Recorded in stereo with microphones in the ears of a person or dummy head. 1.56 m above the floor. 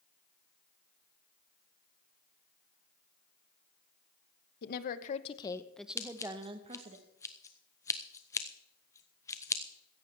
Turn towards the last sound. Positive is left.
turn(degrees=15)  # may be behind; listen again after turning